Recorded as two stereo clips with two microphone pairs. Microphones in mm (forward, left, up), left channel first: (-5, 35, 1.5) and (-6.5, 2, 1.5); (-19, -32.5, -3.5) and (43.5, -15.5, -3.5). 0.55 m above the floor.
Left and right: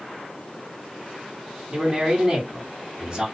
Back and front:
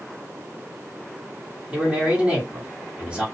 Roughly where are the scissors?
No scissors in this recording.